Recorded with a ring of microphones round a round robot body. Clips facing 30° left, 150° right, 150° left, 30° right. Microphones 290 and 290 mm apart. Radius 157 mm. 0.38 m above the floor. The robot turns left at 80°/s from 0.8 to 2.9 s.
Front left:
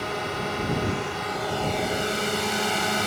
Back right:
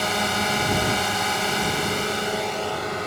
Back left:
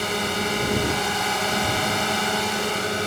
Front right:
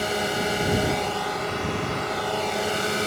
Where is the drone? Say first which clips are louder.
Back right 3 dB, even; 135° right; by 3.1 s 60° left.